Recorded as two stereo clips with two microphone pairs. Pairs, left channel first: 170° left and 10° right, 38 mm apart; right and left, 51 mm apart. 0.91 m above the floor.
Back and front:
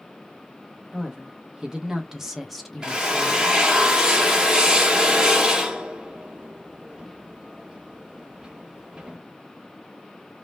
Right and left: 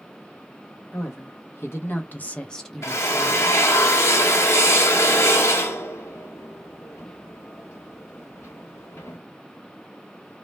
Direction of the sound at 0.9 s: 75° right.